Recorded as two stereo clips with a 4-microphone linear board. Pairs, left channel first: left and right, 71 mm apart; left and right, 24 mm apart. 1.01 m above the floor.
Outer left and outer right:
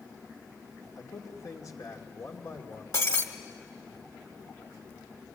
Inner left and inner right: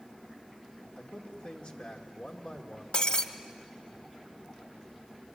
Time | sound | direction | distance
1.0 | a man speaking | 55° left (ahead or behind) | 2.5 m
2.9 | breaking glass | 50° left (ahead or behind) | 1.4 m